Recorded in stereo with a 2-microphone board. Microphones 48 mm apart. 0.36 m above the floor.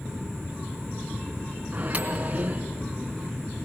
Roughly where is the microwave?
Right.